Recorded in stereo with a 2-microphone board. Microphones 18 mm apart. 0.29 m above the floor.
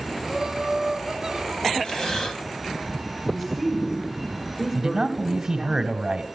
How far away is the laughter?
About 1.5 m.